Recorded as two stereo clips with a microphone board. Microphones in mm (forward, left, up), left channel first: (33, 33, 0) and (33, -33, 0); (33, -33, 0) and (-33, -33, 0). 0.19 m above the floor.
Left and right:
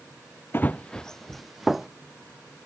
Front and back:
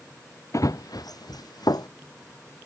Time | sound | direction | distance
0.5 | running footsteps | 35° left | ?